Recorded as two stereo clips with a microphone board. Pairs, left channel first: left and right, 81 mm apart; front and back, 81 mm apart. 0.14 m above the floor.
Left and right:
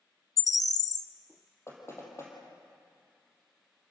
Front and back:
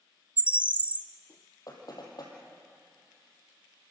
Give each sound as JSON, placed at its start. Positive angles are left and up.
{"t": 0.4, "sound": "a bird", "azimuth_deg": 110, "distance_m": 0.6}
{"t": 1.7, "sound": "knocking", "azimuth_deg": 35, "distance_m": 4.5}